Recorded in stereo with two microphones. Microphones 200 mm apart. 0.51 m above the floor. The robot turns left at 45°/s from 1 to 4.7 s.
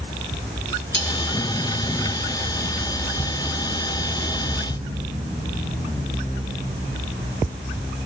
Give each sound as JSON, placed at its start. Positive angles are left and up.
{"t": 0.9, "sound": "cutlery clinking", "side_deg": 65, "distance_m": 3.0}